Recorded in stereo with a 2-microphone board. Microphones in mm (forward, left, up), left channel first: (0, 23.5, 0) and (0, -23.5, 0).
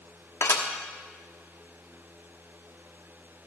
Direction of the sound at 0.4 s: 70° left (ahead or behind).